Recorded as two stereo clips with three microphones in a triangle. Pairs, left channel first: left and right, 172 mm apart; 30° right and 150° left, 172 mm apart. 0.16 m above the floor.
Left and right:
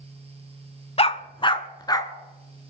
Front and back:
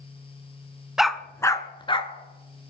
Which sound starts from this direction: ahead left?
A dog barking, at 1.0 s.